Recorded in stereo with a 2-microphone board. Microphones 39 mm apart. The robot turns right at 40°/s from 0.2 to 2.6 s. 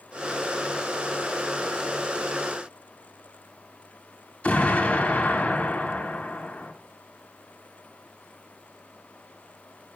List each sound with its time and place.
4.4 s an explosion: 35° left (ahead or behind), 6.5 m